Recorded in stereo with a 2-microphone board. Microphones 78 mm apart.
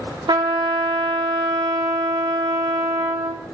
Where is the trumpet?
80° right, 1.5 m.